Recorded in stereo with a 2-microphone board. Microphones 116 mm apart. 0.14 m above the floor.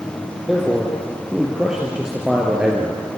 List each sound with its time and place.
0.5 s a man speaking: 5° right (ahead or behind), 4 m; by 3.0 s 10° right (ahead or behind), 3 m